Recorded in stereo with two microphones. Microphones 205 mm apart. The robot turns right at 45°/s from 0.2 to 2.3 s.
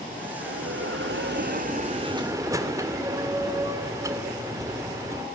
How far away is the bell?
About 2.0 m.